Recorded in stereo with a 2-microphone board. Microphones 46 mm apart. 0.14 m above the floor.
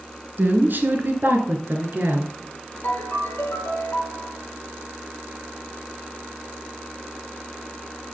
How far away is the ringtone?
About 2 m.